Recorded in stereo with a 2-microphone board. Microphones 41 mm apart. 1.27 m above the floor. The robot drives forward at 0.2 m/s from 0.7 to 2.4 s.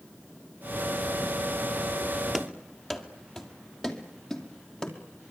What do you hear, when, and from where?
2.3 s running footsteps: 5° left (ahead or behind), 1.7 m; by 5.0 s 20° left (ahead or behind), 3 m